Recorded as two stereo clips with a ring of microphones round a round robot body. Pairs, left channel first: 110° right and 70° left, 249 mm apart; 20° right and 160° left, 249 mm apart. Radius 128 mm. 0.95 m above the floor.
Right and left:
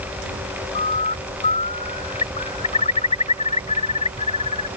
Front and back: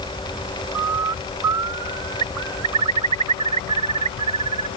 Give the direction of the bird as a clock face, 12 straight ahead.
6 o'clock.